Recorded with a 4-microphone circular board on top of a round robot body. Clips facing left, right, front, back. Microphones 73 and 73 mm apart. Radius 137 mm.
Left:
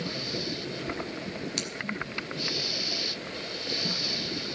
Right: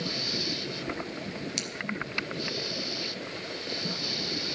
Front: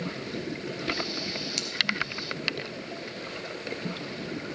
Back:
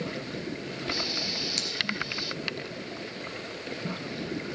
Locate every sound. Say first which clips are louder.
1.6 s scissors: left 2 dB, even; 130° left, 3 m